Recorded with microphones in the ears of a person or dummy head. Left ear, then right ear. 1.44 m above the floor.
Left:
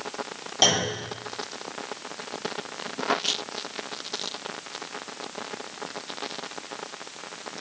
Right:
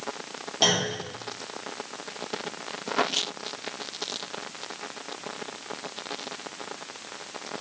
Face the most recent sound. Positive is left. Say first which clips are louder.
# left 2 dB
turn(degrees=10)  # may be behind; listen again after turning